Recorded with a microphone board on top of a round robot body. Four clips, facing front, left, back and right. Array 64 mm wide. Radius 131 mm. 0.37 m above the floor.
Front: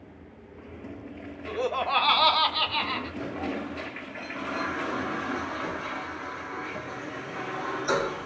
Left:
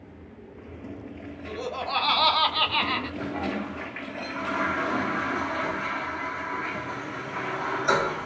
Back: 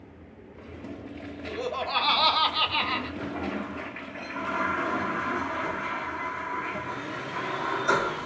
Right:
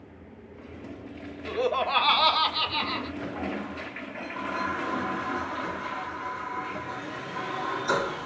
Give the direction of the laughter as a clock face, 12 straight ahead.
2 o'clock.